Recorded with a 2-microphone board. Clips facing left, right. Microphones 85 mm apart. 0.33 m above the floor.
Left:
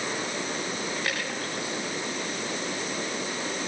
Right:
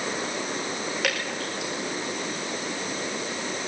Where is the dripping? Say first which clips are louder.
Right 2 dB; 75° right (ahead or behind), 6 m.